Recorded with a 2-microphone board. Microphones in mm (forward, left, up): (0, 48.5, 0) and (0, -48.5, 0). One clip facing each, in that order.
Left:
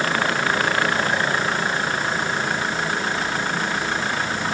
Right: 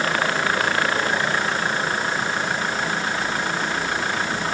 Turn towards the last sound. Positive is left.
No sound to turn to.